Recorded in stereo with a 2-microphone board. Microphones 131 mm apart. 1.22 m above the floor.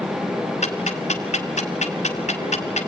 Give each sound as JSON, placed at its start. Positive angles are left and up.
{"t": 0.6, "sound": "ticking", "side_deg": 70, "distance_m": 2.0}